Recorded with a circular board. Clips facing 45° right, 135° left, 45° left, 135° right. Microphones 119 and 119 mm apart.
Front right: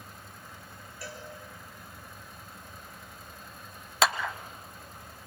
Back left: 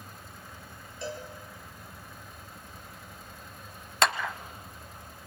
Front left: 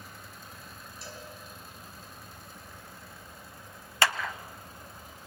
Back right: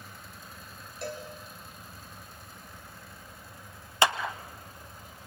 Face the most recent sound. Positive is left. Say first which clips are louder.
# even, back right 3 dB
turn(degrees=-130)